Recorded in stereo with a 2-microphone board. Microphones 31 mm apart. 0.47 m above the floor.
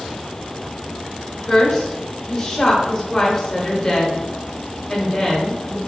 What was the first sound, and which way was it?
A woman speaking, 20° left (ahead or behind).